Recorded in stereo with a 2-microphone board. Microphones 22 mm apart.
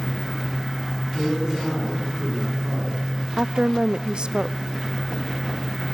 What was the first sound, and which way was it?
A man speaking, 25° right (ahead or behind).